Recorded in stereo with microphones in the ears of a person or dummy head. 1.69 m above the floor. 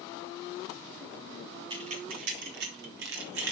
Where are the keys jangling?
25° right (ahead or behind), 0.8 m; by 3.5 s 75° right (ahead or behind), 2.5 m.